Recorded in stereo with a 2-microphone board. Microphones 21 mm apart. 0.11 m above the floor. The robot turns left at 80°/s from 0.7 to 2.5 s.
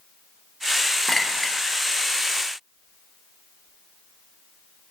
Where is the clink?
20° left (ahead or behind), 1.0 m.